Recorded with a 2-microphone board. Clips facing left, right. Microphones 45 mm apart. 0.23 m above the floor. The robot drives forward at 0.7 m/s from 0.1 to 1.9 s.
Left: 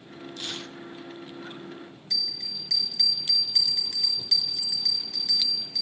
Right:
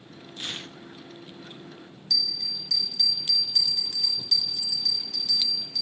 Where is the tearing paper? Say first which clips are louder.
Right 1 dB; 25° right (ahead or behind), 1.4 m; by 0.8 s 30° right (ahead or behind), 1.1 m.